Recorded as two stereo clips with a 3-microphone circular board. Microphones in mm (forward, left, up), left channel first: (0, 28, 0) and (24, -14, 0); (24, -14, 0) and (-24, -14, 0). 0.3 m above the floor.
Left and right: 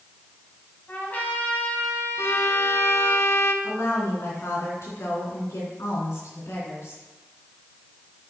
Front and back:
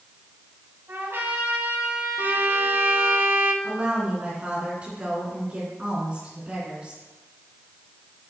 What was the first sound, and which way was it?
A trumpet, 165° left.